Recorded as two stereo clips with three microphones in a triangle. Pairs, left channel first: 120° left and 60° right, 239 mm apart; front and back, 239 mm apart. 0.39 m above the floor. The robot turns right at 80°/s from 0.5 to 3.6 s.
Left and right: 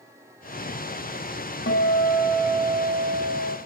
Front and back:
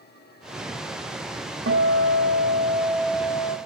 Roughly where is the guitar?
Behind left.